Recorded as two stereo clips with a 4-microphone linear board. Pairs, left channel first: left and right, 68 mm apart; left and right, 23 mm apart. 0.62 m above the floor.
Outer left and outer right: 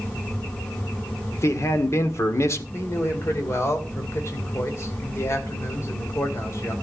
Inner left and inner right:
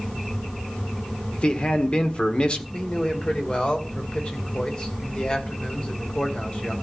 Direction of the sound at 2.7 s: 45° left (ahead or behind).